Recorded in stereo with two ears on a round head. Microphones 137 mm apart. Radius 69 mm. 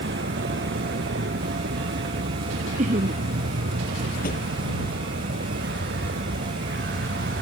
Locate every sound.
0.0 s a vehicle: 85° right
2.8 s laughter: 50° right (ahead or behind)
4.2 s a drawer: 70° left (ahead or behind)